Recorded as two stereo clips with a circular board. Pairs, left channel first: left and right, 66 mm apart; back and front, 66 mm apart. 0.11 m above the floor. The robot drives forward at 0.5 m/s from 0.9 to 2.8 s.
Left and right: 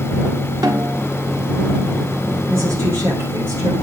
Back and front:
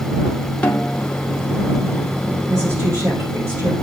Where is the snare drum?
110° right, 1.3 m; by 1.1 s 115° right, 1.4 m.